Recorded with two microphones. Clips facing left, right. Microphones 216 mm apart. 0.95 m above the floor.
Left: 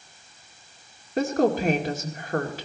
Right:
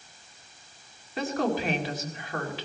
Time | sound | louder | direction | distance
1.2 | a woman speaking | left 6 dB | 45° left (ahead or behind) | 2 m